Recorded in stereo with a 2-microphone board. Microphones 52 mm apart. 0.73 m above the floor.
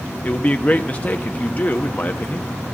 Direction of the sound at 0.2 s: 30° left (ahead or behind).